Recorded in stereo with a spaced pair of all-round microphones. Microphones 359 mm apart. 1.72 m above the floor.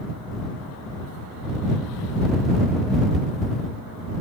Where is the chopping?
No chopping in this recording.